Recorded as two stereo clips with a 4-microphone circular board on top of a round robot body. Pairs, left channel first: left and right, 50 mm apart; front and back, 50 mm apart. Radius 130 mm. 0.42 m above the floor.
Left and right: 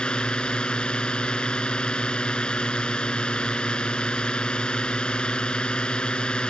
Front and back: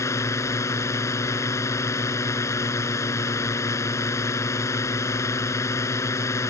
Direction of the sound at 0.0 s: 20° left.